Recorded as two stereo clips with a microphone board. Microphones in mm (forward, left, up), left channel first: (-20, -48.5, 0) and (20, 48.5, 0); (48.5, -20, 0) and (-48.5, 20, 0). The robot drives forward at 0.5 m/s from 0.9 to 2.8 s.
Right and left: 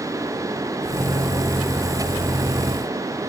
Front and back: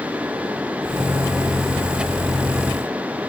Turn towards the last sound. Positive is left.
No sound to turn to.